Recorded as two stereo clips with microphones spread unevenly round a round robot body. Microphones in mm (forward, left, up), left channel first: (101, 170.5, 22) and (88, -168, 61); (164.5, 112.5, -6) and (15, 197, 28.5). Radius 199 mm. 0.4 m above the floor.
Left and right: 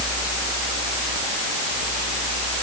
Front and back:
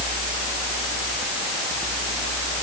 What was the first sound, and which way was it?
Only background noise.